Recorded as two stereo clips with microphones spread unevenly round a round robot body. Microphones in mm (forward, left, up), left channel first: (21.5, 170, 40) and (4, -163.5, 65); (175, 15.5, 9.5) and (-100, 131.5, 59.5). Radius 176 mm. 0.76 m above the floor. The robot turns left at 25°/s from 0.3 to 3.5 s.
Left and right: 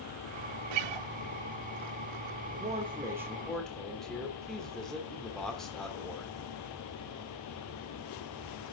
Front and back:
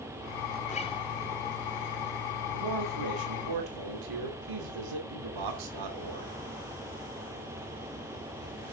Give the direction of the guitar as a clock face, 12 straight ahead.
3 o'clock.